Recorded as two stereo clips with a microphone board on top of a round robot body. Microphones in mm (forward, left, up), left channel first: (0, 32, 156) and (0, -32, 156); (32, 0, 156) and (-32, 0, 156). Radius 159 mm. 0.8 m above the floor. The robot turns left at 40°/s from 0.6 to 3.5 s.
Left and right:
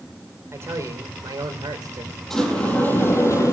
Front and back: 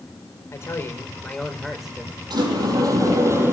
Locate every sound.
0.5 s a man speaking: 45° right, 4.5 m; by 2.2 s 110° right, 4.5 m
2.3 s a sliding door: 170° left, 7.5 m; by 3.5 s 125° left, 7.5 m